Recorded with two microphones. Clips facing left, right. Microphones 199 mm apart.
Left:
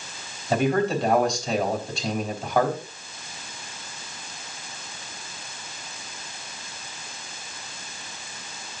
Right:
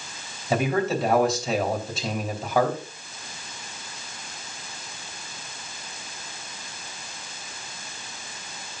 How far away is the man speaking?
About 3.5 m.